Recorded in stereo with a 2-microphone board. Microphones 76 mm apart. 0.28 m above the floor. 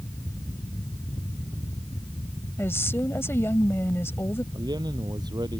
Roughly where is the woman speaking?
Left.